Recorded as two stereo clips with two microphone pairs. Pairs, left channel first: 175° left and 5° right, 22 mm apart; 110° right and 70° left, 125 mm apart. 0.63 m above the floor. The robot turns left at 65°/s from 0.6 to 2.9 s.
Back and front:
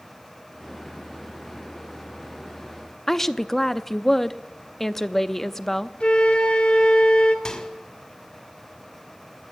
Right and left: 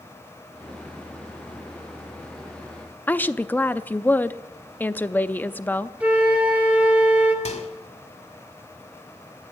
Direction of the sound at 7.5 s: 125° right.